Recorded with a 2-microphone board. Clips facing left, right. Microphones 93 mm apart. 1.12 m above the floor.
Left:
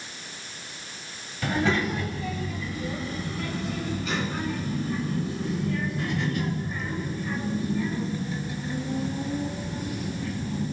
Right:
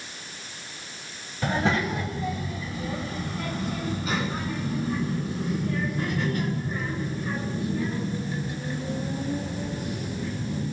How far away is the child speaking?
About 4.5 m.